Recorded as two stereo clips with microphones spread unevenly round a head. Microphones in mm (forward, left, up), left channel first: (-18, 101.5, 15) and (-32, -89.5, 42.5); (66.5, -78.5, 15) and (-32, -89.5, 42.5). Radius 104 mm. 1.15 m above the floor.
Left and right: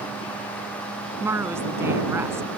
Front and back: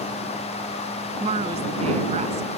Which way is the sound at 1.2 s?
170° right.